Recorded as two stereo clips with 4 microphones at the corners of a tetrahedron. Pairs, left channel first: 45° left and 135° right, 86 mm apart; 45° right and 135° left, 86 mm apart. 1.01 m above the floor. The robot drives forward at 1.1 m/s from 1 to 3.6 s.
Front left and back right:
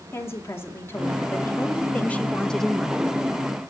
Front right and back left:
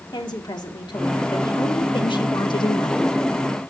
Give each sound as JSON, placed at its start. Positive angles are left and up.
{"t": 0.1, "sound": "a woman speaking", "azimuth_deg": -15, "distance_m": 3.0}